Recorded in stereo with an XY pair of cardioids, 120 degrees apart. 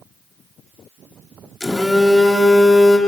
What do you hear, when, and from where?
1.6 s a phone buzzing: 10° left, 2.5 m